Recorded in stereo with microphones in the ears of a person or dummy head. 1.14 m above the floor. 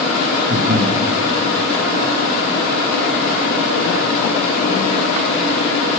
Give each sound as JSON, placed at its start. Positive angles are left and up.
{"t": 0.5, "sound": "breathing", "side_deg": -40, "distance_m": 1.5}